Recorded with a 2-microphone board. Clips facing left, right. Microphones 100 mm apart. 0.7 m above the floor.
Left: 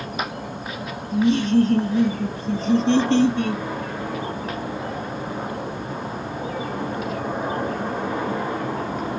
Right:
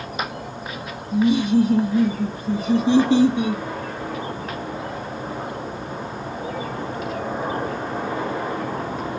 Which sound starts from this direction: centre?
Laughter, at 1.1 s.